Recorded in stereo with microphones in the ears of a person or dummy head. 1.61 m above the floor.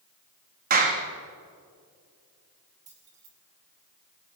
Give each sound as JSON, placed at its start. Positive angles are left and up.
{"t": 0.7, "sound": "a clap", "side_deg": -45, "distance_m": 2.0}
{"t": 2.9, "sound": "keys jangling", "side_deg": -30, "distance_m": 3.0}